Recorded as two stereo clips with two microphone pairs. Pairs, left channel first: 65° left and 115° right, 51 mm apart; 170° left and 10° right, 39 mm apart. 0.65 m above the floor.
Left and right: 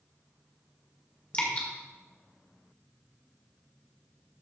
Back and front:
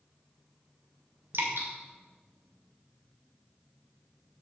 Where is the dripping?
10° left, 2 m.